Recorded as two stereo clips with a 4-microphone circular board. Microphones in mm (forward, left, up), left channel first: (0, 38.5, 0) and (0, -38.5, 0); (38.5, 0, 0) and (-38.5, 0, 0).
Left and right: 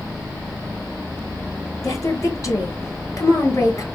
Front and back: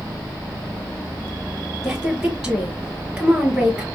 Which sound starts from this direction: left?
A woman speaking, at 1.8 s.